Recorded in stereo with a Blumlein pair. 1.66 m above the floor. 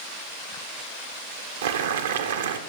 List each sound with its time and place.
1.6 s boiling: 60° right, 1.0 m